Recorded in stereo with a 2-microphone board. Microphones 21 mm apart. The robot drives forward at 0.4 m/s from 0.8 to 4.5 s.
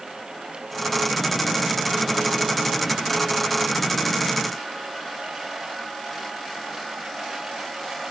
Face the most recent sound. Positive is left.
No sound to turn to.